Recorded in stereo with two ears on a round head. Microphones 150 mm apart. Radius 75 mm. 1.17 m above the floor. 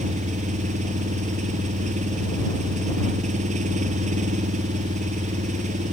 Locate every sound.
0.0 s an engine running: 45° right (ahead or behind)